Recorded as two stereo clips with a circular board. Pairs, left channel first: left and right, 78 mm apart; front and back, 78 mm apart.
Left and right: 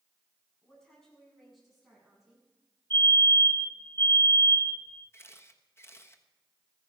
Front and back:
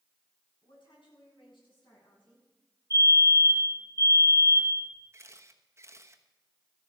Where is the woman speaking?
10° left, 7 m; by 2.5 s 5° right, 8.5 m.